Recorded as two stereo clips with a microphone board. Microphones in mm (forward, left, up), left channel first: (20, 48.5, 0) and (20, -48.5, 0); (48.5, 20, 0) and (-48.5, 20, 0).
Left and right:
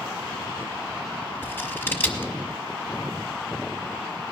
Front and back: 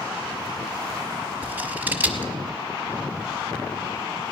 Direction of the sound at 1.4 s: 130° left.